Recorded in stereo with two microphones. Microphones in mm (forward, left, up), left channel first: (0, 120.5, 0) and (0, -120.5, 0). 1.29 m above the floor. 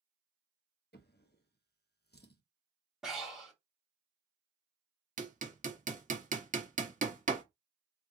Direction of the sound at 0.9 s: 45° left (ahead or behind).